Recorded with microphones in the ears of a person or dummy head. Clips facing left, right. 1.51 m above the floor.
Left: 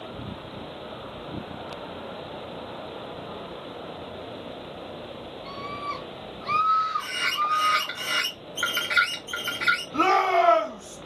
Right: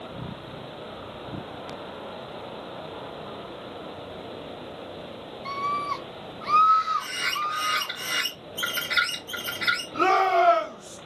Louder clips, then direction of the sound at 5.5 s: Right 6 dB; 70° right (ahead or behind).